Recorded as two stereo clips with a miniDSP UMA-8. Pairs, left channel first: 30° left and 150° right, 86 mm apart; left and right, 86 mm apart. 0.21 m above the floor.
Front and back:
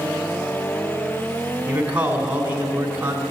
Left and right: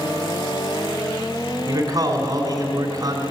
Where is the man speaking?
85° right, 2.5 m.